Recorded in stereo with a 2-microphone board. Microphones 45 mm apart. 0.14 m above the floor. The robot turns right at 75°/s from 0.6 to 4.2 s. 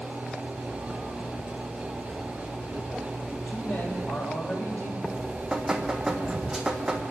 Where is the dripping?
15° right (ahead or behind), 1.7 m.